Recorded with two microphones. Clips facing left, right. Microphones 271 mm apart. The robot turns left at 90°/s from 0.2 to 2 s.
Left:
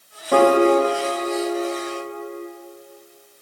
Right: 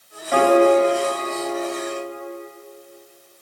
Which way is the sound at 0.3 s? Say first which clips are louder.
Even; 105° left.